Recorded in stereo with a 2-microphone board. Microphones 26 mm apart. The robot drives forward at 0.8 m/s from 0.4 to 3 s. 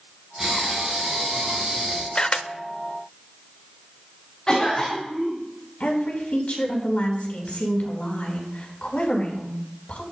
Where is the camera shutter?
40° left (ahead or behind), 0.6 m; by 2.5 s 55° left (ahead or behind), 0.5 m.